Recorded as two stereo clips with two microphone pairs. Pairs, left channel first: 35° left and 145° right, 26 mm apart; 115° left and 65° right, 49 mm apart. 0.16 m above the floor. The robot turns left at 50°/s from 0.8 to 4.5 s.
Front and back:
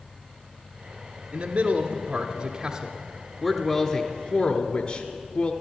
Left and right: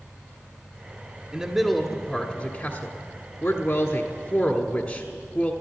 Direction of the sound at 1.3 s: 135° right.